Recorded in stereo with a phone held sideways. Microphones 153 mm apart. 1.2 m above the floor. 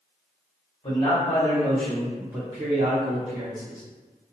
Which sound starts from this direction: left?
A man speaking, at 0.8 s.